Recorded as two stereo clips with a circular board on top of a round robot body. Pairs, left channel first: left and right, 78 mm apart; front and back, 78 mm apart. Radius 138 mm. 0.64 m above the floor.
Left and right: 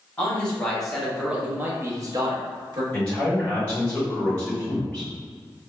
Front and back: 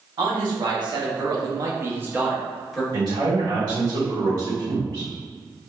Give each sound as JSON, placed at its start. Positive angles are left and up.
{"t": 0.2, "sound": "a man speaking", "azimuth_deg": 160, "distance_m": 1.4}
{"t": 2.9, "sound": "a man speaking", "azimuth_deg": 165, "distance_m": 1.9}